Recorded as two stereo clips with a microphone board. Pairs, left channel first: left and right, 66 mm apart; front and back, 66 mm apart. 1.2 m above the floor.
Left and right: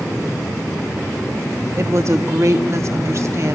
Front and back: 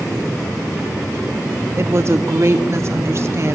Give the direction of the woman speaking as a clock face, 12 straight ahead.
4 o'clock.